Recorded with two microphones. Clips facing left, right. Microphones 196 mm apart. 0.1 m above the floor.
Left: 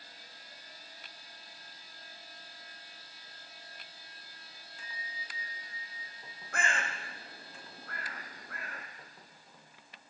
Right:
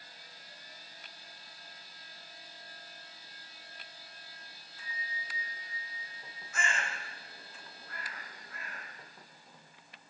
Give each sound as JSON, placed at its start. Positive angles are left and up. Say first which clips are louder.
{"t": 4.8, "sound": "a bell", "louder": "right 3 dB", "side_deg": 75, "distance_m": 1.4}
{"t": 6.5, "sound": "a bird", "louder": "left 2 dB", "side_deg": 65, "distance_m": 1.8}